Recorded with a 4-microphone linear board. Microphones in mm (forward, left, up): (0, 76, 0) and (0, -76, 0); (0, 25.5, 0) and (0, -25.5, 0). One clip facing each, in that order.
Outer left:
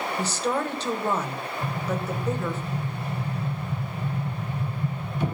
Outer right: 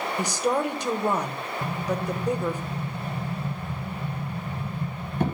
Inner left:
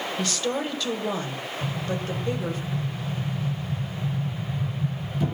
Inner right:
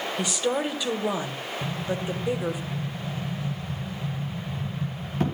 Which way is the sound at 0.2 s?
15° right (ahead or behind).